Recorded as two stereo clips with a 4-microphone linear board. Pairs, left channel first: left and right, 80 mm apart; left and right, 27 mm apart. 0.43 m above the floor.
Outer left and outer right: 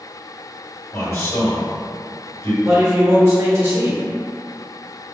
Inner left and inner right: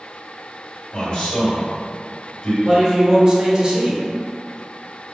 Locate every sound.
0.9 s a man speaking: 45° left (ahead or behind), 1.7 m
2.6 s a man speaking: 40° right (ahead or behind), 1.2 m